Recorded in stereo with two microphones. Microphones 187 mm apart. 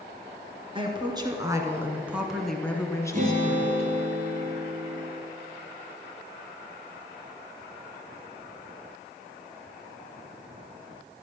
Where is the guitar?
45° right (ahead or behind), 3 m.